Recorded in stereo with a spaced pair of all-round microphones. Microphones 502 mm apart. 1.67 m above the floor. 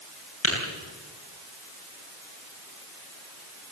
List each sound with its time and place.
0.4 s tapping: 65° left (ahead or behind), 9 m